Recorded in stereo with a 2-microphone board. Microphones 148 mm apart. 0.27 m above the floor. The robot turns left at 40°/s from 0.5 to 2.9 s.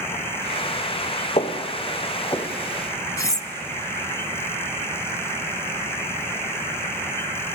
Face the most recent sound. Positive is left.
turn(degrees=20)  # may be behind; listen again after turning